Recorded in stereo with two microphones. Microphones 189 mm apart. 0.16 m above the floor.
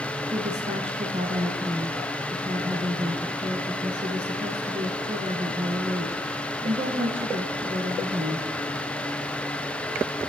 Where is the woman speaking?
35° right (ahead or behind), 2 m.